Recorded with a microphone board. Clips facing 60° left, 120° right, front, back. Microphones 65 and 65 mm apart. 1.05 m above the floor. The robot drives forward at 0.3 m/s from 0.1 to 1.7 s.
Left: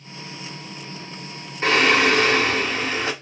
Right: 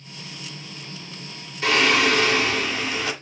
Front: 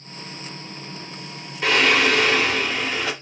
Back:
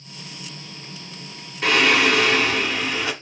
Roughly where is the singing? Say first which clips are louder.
Left 2 dB, even; left.